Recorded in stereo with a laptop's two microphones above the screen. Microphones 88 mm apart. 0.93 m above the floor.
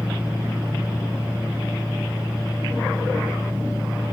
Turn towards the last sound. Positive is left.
turn(degrees=-10)  # may be behind; listen again after turning